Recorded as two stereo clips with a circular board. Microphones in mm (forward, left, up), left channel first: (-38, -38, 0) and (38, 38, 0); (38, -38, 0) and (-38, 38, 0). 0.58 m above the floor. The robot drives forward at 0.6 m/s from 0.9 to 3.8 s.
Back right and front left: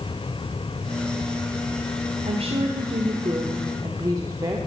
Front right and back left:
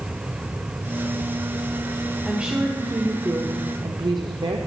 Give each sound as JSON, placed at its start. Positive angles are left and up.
{"t": 2.2, "sound": "a woman speaking", "azimuth_deg": 55, "distance_m": 1.4}